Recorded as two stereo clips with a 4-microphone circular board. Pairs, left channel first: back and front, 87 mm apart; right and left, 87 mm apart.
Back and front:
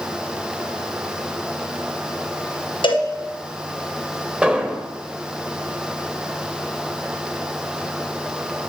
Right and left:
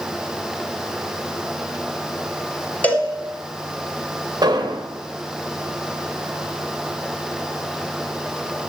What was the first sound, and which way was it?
A cowbell, 160° right.